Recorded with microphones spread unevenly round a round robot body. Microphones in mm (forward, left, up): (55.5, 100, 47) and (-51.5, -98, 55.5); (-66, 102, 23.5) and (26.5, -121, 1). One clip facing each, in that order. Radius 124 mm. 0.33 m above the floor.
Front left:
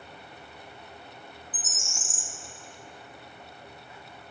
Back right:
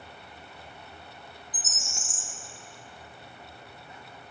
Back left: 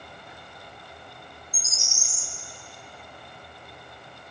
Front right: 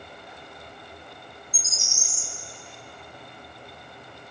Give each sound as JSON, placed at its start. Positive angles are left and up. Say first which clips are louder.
{"t": 1.5, "sound": "a bird", "louder": "front left 1 dB, front right 2 dB", "azimuth_deg": 95, "distance_m": 1.5}